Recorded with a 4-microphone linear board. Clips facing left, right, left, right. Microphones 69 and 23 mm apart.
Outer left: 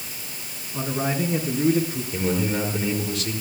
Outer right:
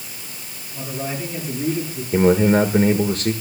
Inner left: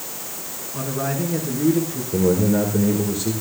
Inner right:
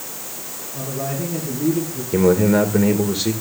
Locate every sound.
0.7 s a man speaking: 50° left (ahead or behind), 5 m
2.1 s a man speaking: 45° right (ahead or behind), 1.6 m